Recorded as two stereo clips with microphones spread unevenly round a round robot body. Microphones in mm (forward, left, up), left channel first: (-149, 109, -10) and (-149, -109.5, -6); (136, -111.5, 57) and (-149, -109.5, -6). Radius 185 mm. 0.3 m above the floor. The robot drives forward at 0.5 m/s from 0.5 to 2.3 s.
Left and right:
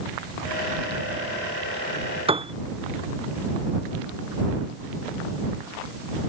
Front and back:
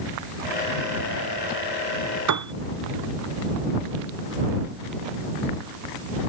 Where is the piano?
155° right.